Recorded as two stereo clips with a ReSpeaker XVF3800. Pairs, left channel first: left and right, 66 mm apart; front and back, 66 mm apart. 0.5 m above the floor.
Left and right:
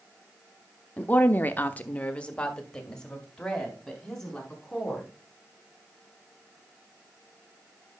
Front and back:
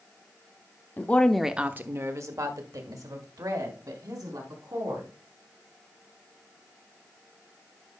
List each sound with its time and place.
1.0 s a woman speaking: 35° left, 0.9 m; by 5.1 s 175° left, 4.5 m